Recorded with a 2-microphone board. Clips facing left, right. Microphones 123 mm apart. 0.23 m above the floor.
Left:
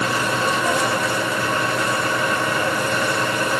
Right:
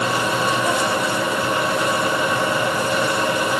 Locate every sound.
Only background noise.